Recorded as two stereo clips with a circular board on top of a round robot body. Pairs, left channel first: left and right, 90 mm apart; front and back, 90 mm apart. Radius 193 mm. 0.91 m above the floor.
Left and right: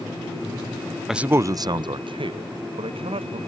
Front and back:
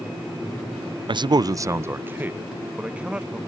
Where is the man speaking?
175° right; by 3.4 s 100° right.